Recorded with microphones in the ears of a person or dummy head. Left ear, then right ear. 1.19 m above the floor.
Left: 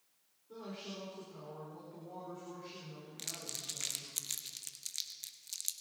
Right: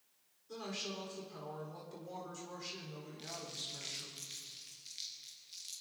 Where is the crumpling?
40° left (ahead or behind), 1.2 m.